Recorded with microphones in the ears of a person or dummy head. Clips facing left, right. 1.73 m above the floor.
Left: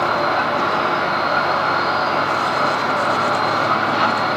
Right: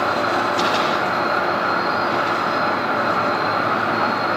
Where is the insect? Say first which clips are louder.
Left 1 dB; 30° right (ahead or behind), 4.5 m.